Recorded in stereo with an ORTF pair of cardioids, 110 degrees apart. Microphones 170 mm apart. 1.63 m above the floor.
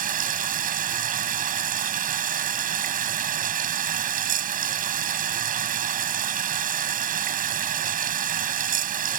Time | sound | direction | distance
0.0 | running water | 55° right | ?